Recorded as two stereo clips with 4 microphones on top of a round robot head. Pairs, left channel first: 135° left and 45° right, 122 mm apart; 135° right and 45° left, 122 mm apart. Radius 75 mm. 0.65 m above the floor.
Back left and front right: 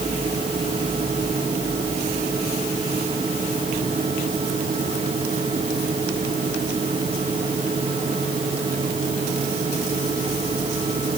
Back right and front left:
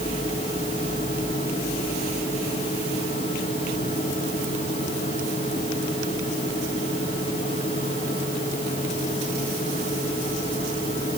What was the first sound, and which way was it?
Only background noise.